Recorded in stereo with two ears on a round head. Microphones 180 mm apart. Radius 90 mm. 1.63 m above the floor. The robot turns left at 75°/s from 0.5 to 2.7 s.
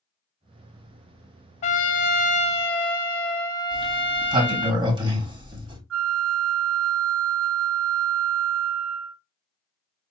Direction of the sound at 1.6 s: 120° left.